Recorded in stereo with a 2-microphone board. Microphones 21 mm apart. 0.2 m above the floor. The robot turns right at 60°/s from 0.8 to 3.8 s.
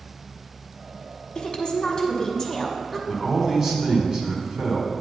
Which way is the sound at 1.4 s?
100° left.